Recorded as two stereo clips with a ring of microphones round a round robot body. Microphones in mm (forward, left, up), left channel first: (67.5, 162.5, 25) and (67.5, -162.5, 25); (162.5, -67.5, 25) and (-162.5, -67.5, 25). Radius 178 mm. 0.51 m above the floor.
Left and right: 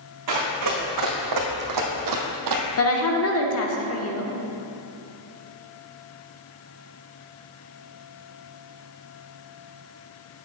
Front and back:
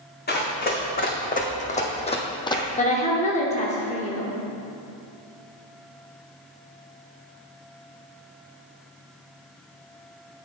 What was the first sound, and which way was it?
Running footsteps, 60° right.